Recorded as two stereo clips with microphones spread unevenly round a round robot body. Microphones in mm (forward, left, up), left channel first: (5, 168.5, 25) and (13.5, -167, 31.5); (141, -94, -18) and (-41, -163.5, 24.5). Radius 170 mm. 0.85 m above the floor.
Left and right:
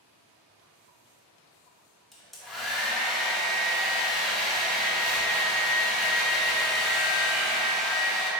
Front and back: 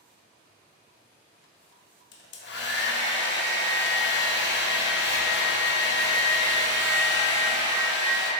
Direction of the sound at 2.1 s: Straight ahead.